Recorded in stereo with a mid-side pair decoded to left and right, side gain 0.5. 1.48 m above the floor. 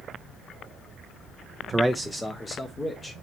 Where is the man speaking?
15° right, 0.5 m; by 3.1 s 30° left, 1.5 m.